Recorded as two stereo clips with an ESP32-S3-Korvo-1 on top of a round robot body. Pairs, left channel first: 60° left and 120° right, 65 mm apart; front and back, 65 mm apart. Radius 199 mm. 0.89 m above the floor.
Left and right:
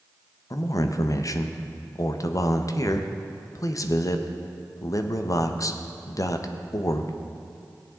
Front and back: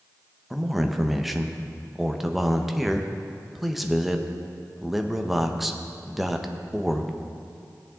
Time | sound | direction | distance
0.5 | a man speaking | 95° left | 1.0 m